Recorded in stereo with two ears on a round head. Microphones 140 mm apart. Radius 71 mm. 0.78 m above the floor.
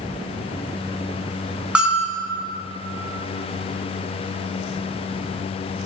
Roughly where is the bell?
Centre.